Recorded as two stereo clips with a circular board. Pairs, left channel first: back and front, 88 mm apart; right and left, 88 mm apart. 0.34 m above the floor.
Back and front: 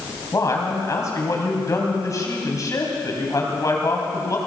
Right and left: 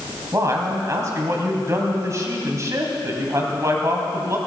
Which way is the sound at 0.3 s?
140° left.